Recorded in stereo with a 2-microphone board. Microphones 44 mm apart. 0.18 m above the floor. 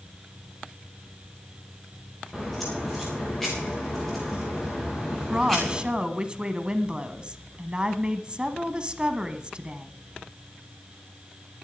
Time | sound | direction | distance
2.3 | a crack | 5° left (ahead or behind) | 8 m
5.3 | a woman speaking | 25° right (ahead or behind) | 1.2 m